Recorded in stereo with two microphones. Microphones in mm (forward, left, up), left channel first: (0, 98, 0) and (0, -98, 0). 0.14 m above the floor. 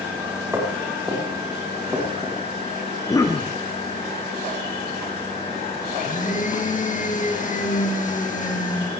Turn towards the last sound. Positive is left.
turn(degrees=45)  # may be behind; listen again after turning